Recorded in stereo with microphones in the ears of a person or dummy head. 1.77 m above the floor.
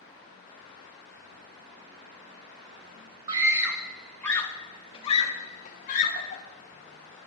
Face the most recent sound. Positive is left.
turn(degrees=40)  # may be behind; listen again after turning